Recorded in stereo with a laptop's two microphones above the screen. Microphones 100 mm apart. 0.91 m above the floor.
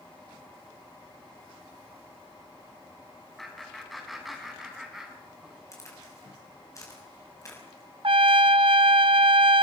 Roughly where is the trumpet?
Right.